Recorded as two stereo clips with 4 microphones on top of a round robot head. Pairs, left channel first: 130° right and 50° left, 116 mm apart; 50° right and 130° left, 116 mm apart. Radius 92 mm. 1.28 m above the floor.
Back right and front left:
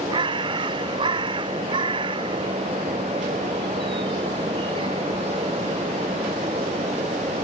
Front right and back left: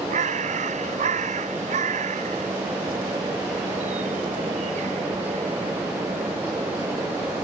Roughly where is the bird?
Left.